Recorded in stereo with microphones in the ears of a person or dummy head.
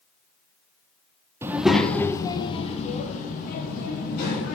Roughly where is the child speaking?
Centre.